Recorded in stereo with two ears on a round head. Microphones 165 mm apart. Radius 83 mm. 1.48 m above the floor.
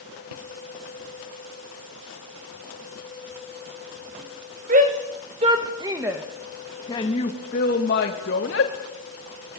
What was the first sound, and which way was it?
A shout, 45° right (ahead or behind).